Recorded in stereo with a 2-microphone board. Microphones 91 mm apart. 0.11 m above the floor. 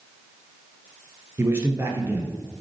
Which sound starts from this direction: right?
A man speaking, at 1.4 s.